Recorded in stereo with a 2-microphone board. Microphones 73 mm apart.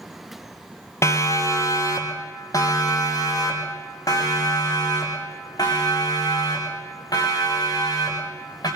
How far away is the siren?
About 2.5 m.